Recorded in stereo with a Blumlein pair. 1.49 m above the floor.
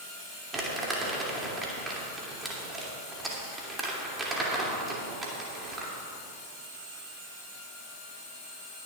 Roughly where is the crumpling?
Ahead.